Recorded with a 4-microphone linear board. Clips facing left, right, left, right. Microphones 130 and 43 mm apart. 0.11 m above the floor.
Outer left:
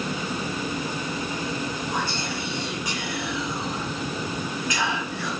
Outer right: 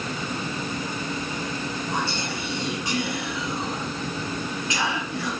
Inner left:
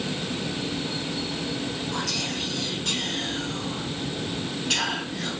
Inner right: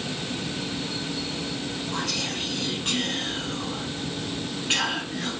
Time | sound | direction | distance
1.9 | whispering | 25° right (ahead or behind) | 1.2 m